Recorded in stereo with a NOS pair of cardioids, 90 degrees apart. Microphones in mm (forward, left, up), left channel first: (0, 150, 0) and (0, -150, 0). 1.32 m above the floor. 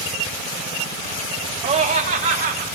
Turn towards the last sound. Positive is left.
turn(degrees=-35)